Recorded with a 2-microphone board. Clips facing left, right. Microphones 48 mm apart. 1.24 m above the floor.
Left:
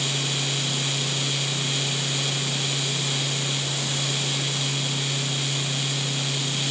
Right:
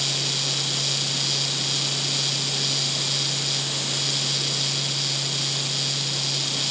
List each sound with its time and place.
Only background noise.